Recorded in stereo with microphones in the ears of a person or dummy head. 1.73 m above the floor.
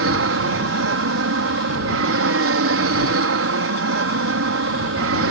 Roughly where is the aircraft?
Right.